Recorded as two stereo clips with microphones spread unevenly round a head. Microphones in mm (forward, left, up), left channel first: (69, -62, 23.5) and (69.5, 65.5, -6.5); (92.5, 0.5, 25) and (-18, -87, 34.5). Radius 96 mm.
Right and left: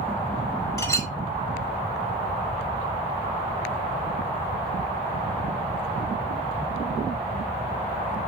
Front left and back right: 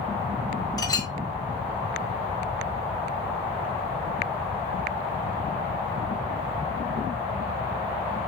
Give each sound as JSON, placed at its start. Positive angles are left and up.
{"t": 0.8, "sound": "a clink", "azimuth_deg": -25, "distance_m": 4.5}